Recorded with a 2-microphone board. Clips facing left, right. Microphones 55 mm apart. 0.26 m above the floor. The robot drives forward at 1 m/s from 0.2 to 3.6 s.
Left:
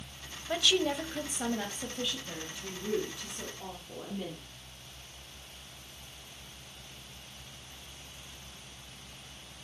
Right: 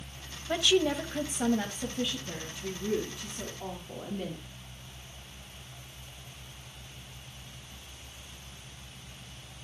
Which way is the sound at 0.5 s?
10° right (ahead or behind).